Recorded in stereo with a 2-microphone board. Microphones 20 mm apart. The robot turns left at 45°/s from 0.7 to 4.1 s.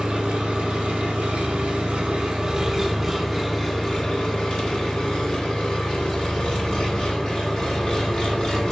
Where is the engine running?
70° right, 1.6 m; by 8.7 s 140° left, 1.6 m.